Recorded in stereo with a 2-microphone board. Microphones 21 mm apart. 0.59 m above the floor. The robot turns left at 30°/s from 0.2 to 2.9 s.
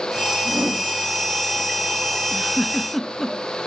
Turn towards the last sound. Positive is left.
turn(degrees=5)  # may be behind; listen again after turning